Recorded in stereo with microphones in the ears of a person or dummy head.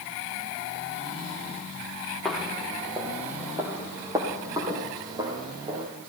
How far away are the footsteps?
About 2.0 m.